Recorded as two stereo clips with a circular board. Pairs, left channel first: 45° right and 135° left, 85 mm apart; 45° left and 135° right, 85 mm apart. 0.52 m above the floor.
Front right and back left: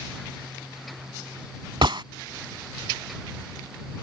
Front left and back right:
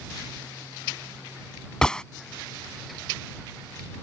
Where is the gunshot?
125° left.